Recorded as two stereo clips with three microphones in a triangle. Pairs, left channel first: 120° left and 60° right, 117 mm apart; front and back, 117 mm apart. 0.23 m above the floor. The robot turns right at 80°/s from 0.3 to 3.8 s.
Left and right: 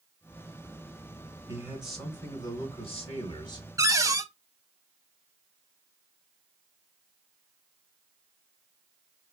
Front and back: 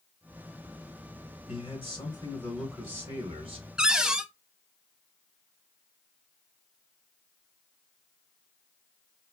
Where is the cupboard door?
105° right, 0.6 m; by 4.3 s 100° right, 0.6 m.